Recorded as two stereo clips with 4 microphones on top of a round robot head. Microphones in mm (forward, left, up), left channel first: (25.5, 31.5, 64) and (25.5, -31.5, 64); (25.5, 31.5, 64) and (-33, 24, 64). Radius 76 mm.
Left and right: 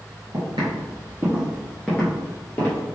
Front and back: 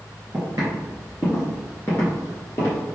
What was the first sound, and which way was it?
Footsteps, 120° right.